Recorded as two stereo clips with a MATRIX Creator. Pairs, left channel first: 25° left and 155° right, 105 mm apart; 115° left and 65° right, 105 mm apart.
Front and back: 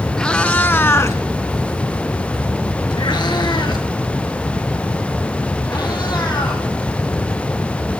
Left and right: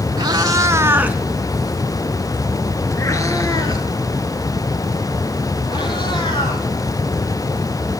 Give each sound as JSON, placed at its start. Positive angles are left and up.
{"t": 0.2, "sound": "a cat meowing", "azimuth_deg": -55, "distance_m": 0.9}